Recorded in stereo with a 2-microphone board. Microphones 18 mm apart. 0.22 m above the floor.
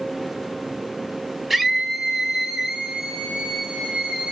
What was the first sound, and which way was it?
A scream, 5° right (ahead or behind).